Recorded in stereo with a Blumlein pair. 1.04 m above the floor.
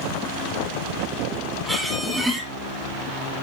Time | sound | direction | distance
1.7 | a squeak | 5° right | 4 m